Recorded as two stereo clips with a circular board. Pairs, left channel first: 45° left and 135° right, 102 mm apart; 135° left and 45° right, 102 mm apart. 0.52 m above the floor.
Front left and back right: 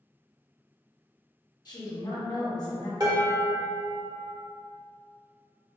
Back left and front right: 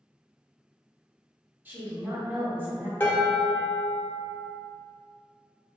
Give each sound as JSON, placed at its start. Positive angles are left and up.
{"t": 1.6, "sound": "a woman speaking", "azimuth_deg": 20, "distance_m": 1.0}
{"t": 3.0, "sound": "dishes clattering", "azimuth_deg": -165, "distance_m": 0.8}